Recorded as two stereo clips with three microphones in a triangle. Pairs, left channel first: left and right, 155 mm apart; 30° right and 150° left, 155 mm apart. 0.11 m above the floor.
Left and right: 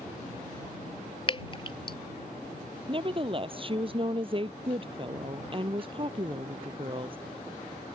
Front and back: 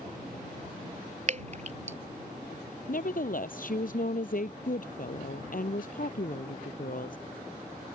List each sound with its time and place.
1.3 s dripping: 135° left
2.9 s a woman speaking: 40° right